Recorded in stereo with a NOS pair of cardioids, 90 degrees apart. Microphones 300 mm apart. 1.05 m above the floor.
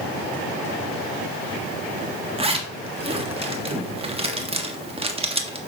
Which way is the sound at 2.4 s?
20° right.